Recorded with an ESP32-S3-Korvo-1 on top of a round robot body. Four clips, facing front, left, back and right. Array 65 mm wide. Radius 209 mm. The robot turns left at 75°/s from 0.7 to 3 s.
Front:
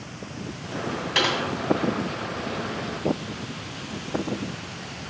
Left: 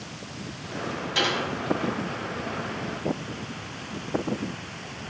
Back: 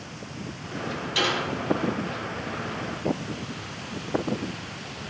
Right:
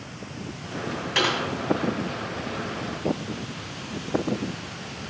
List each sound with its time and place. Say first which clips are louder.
1.1 s typing on a keyboard: right 2 dB, front 2 dB; 30° right, 2.5 m; by 1.4 s 45° right, 2.5 m